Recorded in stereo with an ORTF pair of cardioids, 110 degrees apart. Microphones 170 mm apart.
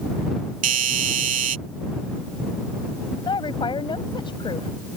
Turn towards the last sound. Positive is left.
turn(degrees=30)